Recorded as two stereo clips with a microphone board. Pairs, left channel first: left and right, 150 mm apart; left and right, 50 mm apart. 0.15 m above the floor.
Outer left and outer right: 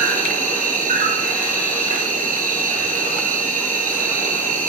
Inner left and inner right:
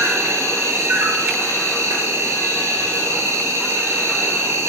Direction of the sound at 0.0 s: 70° right (ahead or behind).